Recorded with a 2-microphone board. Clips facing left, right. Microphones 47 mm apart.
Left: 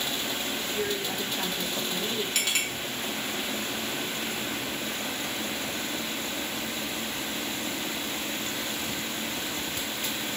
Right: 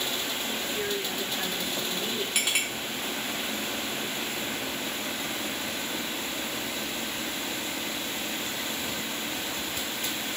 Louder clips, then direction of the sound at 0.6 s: Left 1 dB; 5° right (ahead or behind).